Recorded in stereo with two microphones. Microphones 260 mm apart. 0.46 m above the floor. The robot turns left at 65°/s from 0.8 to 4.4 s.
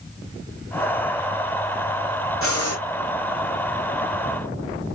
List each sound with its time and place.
2.4 s breathing: 55° left (ahead or behind), 1.1 m; by 2.8 s 75° left (ahead or behind), 1.1 m